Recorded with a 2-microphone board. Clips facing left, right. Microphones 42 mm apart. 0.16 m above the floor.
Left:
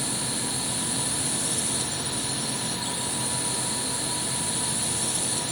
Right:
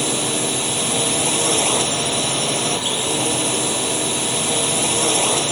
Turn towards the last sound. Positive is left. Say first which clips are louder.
# right 10 dB
turn(degrees=-65)  # may be behind; listen again after turning